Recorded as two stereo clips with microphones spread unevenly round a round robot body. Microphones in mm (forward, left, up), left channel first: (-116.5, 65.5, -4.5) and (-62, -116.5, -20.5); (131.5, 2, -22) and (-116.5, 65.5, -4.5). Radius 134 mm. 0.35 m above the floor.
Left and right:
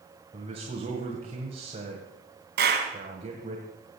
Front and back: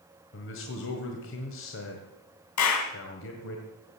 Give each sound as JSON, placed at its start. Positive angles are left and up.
{"t": 0.3, "sound": "a man speaking", "azimuth_deg": -20, "distance_m": 1.7}
{"t": 2.6, "sound": "a clap", "azimuth_deg": -30, "distance_m": 2.5}